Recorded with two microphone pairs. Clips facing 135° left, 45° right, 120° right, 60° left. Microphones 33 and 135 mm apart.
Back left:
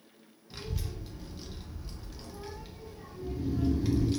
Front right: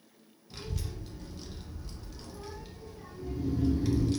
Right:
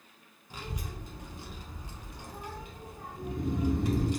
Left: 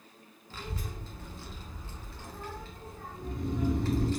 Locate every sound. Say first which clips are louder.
0.5 s a child speaking: back left 1 dB, even; 155° right, 0.6 m
3.2 s snoring: front right 1 dB, right 1 dB; 85° right, 1.0 m